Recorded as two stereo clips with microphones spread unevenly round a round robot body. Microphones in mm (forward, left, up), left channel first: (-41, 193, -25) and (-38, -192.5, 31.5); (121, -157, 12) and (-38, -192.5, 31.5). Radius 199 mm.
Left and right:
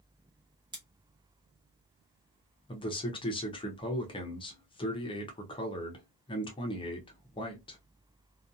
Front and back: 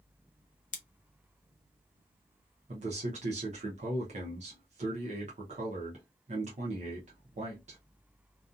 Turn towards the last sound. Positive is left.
turn(degrees=155)